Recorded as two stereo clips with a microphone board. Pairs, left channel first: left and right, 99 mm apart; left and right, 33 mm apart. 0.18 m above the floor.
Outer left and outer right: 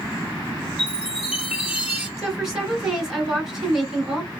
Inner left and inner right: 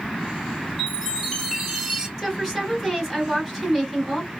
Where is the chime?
15° right (ahead or behind), 1.3 m.